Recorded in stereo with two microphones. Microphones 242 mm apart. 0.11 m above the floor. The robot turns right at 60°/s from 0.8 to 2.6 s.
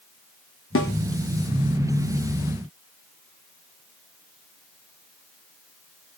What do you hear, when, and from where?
0.8 s a snare drum: 60° left (ahead or behind), 0.5 m; by 0.9 s 55° left (ahead or behind), 0.5 m